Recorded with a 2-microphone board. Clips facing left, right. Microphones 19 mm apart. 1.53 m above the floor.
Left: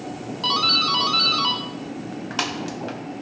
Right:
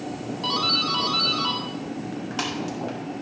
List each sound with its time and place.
0.4 s a doorbell: 20° left (ahead or behind), 1.4 m